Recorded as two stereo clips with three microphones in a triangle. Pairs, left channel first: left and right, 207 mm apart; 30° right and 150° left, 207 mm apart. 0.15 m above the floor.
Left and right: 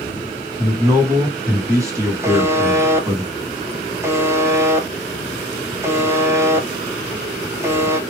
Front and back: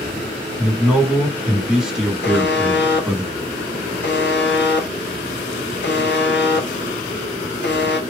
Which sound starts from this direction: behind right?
A man speaking, at 0.6 s.